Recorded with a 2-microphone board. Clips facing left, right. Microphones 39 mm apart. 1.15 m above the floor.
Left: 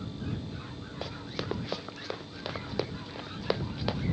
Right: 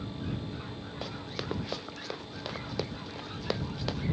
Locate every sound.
1.0 s running footsteps: centre (ahead or behind); by 4.0 s 10° left (ahead or behind)